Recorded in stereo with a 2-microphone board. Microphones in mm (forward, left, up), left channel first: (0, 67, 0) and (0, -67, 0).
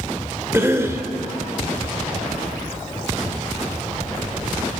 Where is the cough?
20° right (ahead or behind), 1.3 m.